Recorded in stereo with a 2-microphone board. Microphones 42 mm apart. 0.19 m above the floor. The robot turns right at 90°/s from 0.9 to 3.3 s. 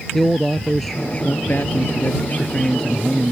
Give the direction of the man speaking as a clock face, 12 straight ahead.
12 o'clock.